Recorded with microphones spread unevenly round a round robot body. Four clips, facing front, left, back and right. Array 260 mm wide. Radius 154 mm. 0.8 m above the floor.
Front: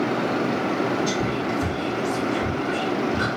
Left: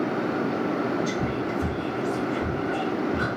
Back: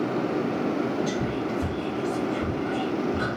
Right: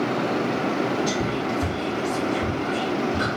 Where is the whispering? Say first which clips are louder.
Right 2 dB, front 3 dB; 130° left, 1.8 m.